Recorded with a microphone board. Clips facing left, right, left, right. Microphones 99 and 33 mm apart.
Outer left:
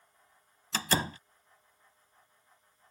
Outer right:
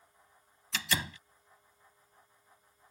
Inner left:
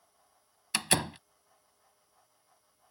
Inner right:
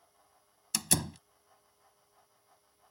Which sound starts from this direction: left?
A door slam, at 0.7 s.